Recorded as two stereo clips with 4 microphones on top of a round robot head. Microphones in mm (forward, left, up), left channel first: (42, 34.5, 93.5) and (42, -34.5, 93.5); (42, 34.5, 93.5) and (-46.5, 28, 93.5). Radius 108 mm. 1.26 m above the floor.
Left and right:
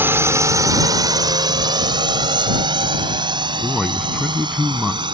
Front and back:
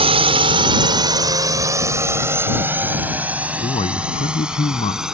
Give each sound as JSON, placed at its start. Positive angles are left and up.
{"t": 0.0, "sound": "a drone", "azimuth_deg": -155}
{"t": 3.6, "sound": "a man speaking", "azimuth_deg": 0}